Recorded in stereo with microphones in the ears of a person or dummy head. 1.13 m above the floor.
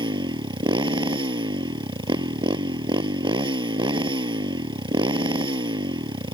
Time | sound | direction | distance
0.0 | a motorcycle | 30° right (ahead or behind) | ?